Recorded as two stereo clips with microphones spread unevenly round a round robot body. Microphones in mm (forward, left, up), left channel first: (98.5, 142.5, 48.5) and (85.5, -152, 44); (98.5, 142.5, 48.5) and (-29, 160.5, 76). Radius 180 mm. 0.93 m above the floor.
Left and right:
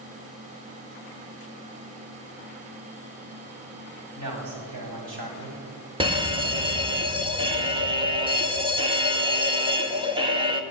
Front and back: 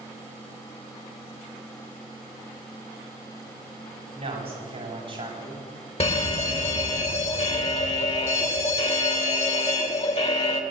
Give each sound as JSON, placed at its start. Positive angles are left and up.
{"t": 4.2, "sound": "a man speaking", "azimuth_deg": -135, "distance_m": 7.5}
{"t": 6.0, "sound": "a fire alarm", "azimuth_deg": -20, "distance_m": 3.0}